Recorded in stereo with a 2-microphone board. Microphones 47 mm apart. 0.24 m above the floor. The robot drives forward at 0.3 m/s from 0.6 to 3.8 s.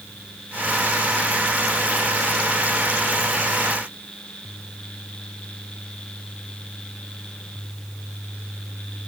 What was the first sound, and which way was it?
Only background noise.